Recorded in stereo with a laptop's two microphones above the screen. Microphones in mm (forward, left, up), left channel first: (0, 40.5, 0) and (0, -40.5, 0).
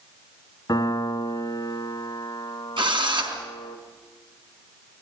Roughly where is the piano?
Left.